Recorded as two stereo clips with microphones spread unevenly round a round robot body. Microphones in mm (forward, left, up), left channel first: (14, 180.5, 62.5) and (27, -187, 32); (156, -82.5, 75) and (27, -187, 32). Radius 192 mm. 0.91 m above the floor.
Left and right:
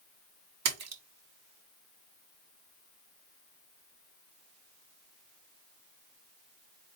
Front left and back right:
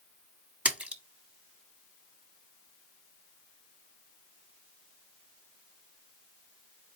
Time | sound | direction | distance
0.7 | a splash | 70° right | 1.3 m